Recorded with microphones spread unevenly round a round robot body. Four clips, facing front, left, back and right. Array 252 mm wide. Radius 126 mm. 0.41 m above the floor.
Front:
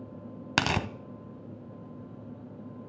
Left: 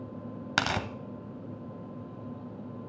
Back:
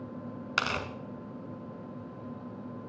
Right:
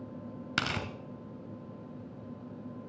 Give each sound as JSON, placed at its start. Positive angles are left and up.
{"t": 0.6, "sound": "tearing paper", "azimuth_deg": 0, "distance_m": 0.7}